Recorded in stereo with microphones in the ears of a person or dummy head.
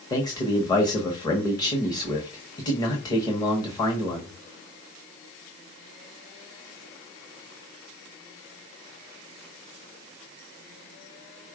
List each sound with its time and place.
0.1 s a man speaking: 20° left (ahead or behind), 0.9 m